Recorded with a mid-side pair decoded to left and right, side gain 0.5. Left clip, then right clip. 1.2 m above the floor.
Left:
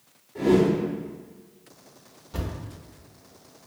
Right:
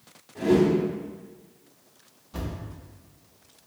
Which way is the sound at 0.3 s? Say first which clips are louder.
Left 1 dB; 10° left.